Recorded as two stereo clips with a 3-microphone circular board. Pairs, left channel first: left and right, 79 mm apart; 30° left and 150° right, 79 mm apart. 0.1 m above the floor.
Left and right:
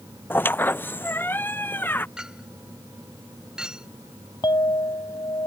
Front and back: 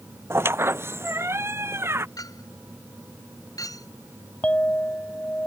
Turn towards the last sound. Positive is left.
turn(degrees=100)